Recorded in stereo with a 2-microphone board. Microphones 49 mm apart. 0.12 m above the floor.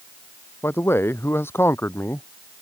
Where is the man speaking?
55° left (ahead or behind).